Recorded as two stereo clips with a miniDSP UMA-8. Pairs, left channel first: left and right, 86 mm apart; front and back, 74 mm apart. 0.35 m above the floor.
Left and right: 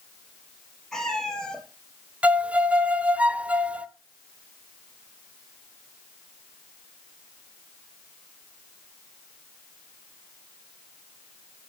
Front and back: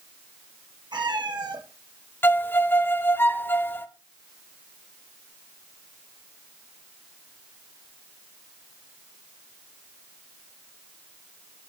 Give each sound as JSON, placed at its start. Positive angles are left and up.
{"t": 0.9, "sound": "a cat meowing", "azimuth_deg": 175, "distance_m": 2.0}
{"t": 2.2, "sound": "a violin", "azimuth_deg": -30, "distance_m": 0.8}